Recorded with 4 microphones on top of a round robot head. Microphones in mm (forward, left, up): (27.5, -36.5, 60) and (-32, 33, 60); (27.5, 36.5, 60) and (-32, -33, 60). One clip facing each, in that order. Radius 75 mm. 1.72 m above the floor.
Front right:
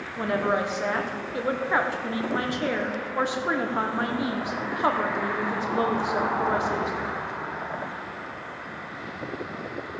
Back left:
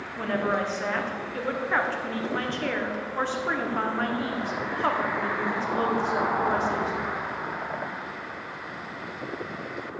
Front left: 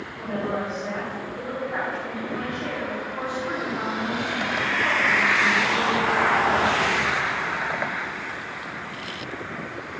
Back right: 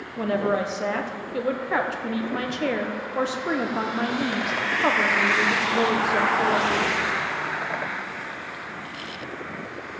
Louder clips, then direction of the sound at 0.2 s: Front right 2 dB, back right 5 dB; 125° right.